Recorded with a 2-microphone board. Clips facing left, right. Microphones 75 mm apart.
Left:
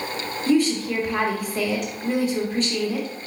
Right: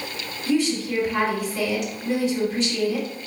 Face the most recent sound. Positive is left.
turn(degrees=45)  # may be behind; listen again after turning